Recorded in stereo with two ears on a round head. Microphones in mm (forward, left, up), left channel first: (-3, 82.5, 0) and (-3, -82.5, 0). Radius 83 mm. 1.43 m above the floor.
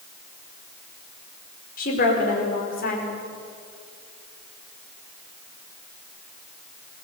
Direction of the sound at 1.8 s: 50° left (ahead or behind).